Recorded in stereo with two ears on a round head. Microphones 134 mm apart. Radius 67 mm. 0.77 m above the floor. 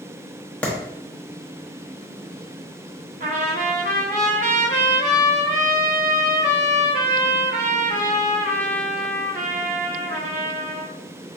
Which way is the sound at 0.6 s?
10° left (ahead or behind).